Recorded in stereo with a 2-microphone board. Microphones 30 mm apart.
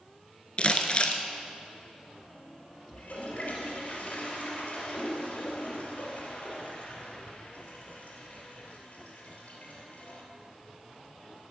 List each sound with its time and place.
0.6 s crumpling: 40° left (ahead or behind), 0.8 m
2.9 s a toilet flushing: 55° left (ahead or behind), 2.5 m